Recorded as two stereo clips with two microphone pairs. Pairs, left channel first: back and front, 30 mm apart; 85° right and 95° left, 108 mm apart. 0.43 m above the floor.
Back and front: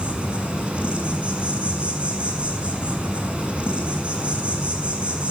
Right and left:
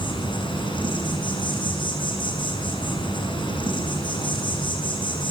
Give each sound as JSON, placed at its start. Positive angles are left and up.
{"t": 0.0, "sound": "an insect", "azimuth_deg": -45, "distance_m": 6.0}